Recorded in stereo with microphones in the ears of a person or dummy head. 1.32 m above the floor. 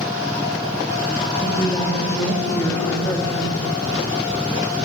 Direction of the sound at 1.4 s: 15° left (ahead or behind).